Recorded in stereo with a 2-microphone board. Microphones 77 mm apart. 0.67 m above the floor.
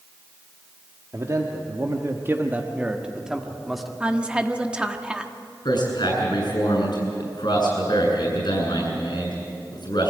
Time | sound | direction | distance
1.1 | a man speaking | 40° right (ahead or behind) | 1.6 m
4.0 | a woman speaking | 15° right (ahead or behind) | 1.2 m
5.7 | a man speaking | 65° left (ahead or behind) | 8.5 m